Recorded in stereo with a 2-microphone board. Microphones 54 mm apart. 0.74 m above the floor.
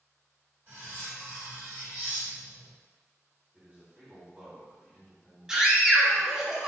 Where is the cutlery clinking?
50° right (ahead or behind), 1.3 m.